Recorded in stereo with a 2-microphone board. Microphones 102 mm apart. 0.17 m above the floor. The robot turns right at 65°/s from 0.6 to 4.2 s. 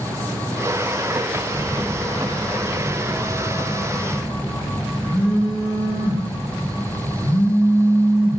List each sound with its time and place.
1.5 s a phone buzzing: 115° right, 1.6 m; by 8.4 s 60° left, 1.6 m